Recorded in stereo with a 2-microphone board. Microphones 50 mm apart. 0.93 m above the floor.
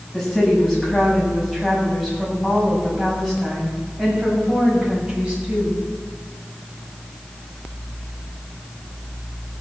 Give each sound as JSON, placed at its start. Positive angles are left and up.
{"t": 0.1, "sound": "a woman speaking", "side_deg": 0, "distance_m": 7.5}